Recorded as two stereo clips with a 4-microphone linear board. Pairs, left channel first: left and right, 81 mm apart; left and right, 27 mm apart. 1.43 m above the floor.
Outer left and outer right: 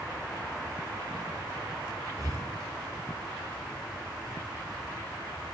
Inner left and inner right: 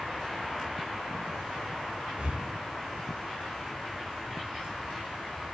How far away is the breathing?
About 2 m.